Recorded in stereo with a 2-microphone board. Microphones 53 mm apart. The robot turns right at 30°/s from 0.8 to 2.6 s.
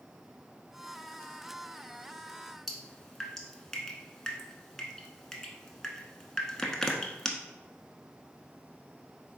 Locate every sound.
2.7 s dripping: 10° left (ahead or behind), 0.7 m